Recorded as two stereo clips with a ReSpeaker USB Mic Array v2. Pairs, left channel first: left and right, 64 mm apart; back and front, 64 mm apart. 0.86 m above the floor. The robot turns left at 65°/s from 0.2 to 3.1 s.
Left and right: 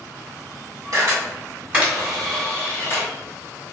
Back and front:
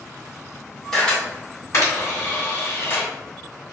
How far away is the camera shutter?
About 1.8 m.